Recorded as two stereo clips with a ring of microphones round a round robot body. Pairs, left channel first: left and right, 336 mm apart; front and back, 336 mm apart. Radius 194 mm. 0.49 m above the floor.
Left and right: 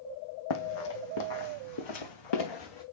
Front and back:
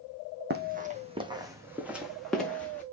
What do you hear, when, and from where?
0.5 s running footsteps: 120° left, 1.5 m; by 2.8 s 85° left, 2.5 m